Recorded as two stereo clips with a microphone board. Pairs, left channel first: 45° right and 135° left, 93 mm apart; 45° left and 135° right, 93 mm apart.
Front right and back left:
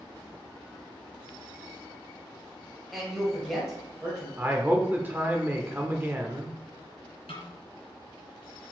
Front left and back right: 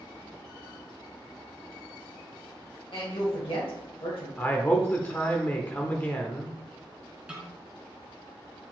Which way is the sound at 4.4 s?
90° left.